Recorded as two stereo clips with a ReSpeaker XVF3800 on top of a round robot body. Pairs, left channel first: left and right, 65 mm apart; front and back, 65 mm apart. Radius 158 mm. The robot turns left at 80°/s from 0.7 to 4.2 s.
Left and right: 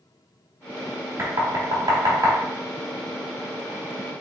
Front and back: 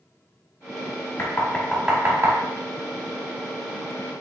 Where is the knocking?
45° right, 1.5 m; by 2.4 s 135° right, 1.5 m.